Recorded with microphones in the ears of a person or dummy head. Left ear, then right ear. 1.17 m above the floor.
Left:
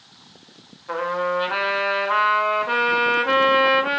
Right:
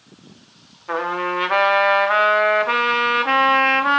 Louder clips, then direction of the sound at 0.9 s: Right 1 dB; 20° right (ahead or behind).